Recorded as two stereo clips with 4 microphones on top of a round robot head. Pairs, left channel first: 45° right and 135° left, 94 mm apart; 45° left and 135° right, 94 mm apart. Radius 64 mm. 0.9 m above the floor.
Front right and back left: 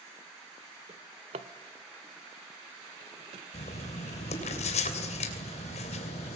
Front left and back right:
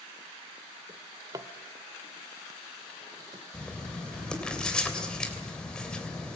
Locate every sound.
0.9 s a drawer: 165° left, 1.1 m
3.5 s writing: 40° right, 3 m